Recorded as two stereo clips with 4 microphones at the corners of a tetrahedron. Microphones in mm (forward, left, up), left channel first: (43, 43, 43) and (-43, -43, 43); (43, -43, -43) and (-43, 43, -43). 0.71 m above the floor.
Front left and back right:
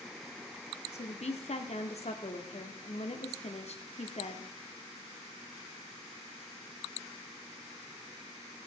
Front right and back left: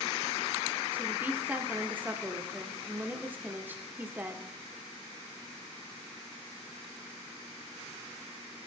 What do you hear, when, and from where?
0.9 s a woman speaking: 60° left, 1.7 m